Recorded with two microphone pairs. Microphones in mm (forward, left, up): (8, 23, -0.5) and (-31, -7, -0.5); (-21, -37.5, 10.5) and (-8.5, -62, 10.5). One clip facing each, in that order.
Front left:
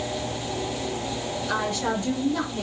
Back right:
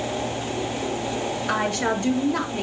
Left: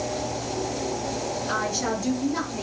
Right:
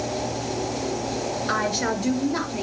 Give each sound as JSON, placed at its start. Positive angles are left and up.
{"t": 1.5, "sound": "a woman speaking", "azimuth_deg": -105, "distance_m": 4.5}